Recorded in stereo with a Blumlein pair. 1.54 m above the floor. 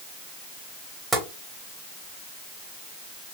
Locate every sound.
1.1 s tapping: 5° right, 1.8 m